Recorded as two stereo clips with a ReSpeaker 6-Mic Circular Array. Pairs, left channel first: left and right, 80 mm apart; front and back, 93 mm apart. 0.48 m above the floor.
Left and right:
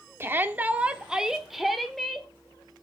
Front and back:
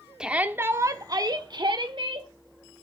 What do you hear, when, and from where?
0.2 s a shout: 105° right, 0.7 m; by 2.3 s 175° left, 1.3 m